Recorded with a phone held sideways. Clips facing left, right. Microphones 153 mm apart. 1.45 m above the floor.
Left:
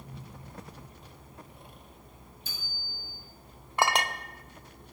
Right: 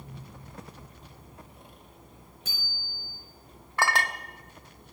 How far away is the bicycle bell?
About 6 m.